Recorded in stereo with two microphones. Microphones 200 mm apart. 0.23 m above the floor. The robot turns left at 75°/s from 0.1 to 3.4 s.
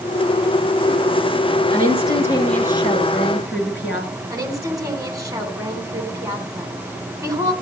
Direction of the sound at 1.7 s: 125° right.